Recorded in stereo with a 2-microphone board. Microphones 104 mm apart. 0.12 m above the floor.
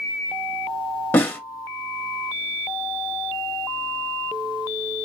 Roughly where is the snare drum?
Centre.